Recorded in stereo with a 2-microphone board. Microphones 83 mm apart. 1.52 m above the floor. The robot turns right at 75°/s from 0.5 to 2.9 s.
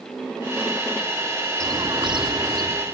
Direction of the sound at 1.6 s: 135° right.